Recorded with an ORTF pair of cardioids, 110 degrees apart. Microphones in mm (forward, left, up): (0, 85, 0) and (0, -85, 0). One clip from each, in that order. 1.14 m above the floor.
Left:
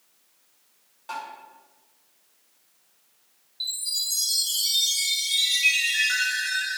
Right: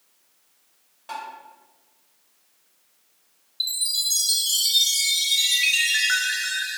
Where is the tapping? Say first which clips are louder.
Right 1 dB; 5° right, 1.6 m.